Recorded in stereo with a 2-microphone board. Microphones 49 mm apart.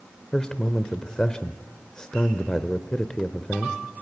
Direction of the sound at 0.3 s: 15° left (ahead or behind).